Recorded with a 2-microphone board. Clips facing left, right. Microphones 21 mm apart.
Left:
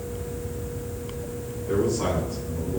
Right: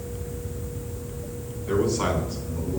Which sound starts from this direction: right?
A man speaking, at 1.7 s.